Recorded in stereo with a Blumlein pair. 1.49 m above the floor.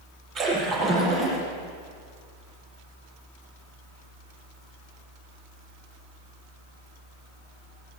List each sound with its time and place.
0.3 s a splash: 30° right, 8.5 m